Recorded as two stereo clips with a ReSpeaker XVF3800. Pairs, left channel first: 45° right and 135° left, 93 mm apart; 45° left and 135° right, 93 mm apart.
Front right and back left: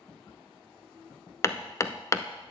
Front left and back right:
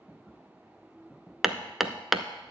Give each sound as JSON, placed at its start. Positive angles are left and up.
{"t": 1.4, "sound": "hammering", "azimuth_deg": -50, "distance_m": 0.6}